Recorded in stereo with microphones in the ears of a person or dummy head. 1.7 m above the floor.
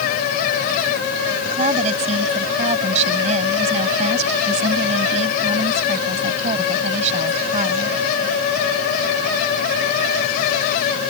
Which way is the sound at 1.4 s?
45° right (ahead or behind).